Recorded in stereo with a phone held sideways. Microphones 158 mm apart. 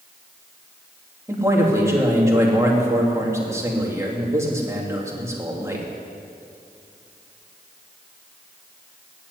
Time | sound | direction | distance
1.3 | a man speaking | 15° right (ahead or behind) | 3 m